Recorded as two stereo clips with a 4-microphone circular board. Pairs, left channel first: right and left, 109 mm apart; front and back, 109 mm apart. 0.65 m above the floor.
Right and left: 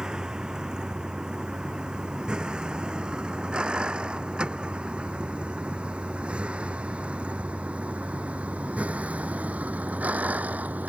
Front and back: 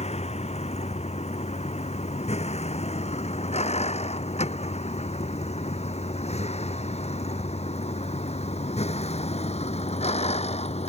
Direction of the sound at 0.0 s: 5° left.